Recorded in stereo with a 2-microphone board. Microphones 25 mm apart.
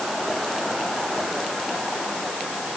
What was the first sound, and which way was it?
Only background noise.